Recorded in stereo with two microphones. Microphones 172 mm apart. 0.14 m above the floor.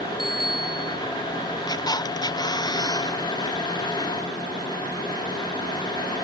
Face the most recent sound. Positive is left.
turn(degrees=25)  # may be behind; listen again after turning